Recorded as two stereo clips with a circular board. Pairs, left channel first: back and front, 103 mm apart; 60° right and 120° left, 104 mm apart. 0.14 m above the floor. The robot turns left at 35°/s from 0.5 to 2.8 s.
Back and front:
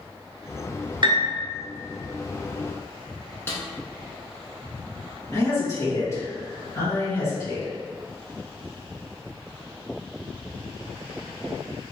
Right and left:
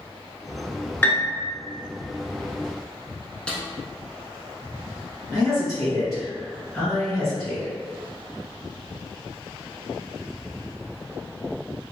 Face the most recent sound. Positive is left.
turn(degrees=-150)